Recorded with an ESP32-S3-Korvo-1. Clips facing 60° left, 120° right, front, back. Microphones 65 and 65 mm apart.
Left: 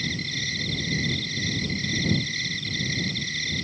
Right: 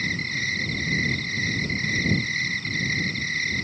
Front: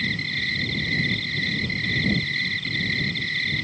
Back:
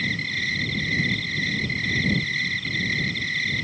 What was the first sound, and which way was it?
An insect, 95° right.